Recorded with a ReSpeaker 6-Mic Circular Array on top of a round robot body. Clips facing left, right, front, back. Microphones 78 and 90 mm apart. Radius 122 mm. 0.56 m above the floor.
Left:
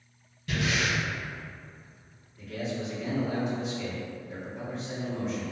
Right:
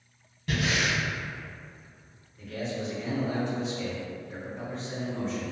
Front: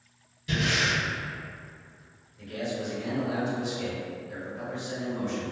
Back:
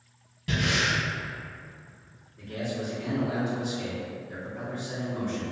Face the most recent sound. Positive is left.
turn(degrees=175)